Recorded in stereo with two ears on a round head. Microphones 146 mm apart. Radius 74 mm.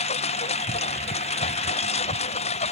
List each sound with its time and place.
0.0 s a lawn mower: 40° left (ahead or behind)